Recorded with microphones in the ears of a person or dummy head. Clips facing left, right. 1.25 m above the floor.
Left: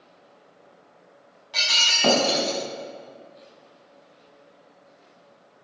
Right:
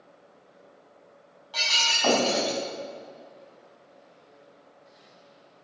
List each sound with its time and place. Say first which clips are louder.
1.5 s breaking glass: even; 30° left (ahead or behind), 5.5 m